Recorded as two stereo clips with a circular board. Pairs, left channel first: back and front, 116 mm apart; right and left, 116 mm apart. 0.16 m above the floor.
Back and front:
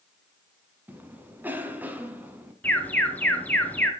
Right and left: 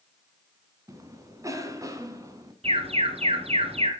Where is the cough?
60° left, 1.4 m.